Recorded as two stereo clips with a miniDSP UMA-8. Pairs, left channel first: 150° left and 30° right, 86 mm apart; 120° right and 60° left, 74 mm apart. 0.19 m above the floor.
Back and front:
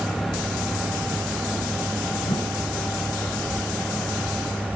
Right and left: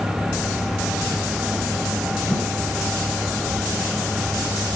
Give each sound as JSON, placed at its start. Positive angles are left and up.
{"t": 2.2, "sound": "a whoosh", "azimuth_deg": 170, "distance_m": 8.5}